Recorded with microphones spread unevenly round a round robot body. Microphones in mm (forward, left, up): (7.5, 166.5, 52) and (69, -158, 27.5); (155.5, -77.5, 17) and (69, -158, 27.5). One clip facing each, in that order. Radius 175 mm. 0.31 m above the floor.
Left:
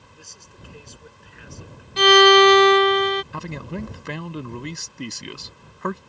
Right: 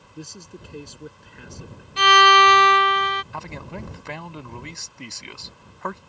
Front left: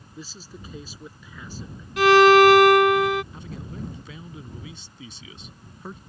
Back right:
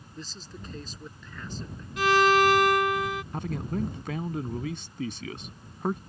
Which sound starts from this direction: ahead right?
A man speaking, at 0.1 s.